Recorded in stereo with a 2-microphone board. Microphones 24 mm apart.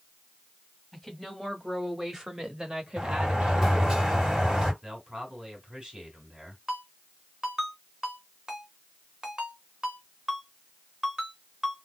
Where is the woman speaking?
Centre (ahead or behind), 2.0 m; by 4.0 s 55° right (ahead or behind), 1.3 m.